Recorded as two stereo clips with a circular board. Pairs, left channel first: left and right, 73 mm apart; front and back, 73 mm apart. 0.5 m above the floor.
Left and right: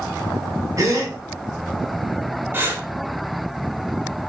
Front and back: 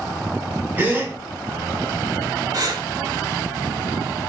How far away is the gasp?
About 1.9 m.